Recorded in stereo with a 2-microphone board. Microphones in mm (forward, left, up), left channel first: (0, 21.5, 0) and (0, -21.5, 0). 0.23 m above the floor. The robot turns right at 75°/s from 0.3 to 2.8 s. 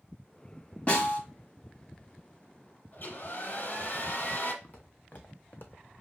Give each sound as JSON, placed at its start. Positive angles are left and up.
{"t": 0.9, "sound": "a snare drum", "side_deg": 35, "distance_m": 1.5}
{"t": 2.9, "sound": "a hair dryer", "side_deg": 40, "distance_m": 1.3}
{"t": 4.6, "sound": "footsteps", "side_deg": 35, "distance_m": 1.8}